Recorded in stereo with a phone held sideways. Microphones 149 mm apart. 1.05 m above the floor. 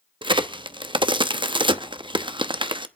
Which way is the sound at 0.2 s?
35° right (ahead or behind).